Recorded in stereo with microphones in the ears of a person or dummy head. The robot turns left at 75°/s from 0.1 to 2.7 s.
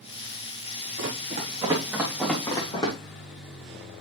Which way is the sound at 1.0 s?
60° right (ahead or behind).